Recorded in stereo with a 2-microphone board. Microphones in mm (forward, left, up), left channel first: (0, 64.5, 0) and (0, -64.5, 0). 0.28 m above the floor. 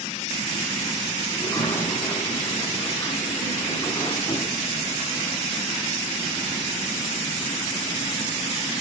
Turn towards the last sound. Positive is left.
turn(degrees=20)  # may be behind; listen again after turning